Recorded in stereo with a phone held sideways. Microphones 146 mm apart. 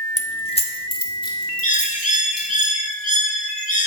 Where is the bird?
55° left (ahead or behind), 1.5 m.